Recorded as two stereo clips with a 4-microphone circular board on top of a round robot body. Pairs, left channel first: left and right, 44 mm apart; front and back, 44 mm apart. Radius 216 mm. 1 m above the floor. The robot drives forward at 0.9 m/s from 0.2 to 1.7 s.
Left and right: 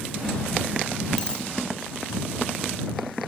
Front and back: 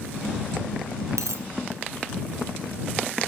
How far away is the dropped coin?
About 0.7 m.